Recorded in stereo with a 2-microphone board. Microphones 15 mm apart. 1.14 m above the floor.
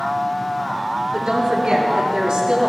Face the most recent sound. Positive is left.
turn(degrees=-70)  # may be behind; listen again after turning